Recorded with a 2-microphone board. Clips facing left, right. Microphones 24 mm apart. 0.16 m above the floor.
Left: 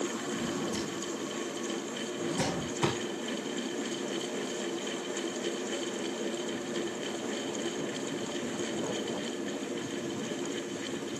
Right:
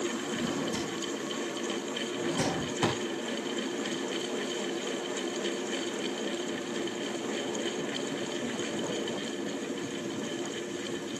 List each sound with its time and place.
0.3 s a drawer: 65° right (ahead or behind), 5 m